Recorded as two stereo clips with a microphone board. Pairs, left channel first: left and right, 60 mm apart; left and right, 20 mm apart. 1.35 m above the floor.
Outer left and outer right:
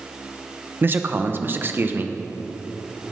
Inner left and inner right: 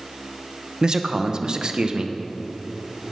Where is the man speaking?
35° right (ahead or behind), 0.7 m.